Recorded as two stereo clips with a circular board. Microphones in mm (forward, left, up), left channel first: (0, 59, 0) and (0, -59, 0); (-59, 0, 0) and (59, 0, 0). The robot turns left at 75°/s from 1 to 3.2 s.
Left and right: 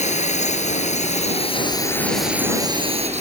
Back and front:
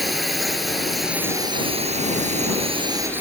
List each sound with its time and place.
0.0 s a drone: 90° left; by 3.2 s 75° right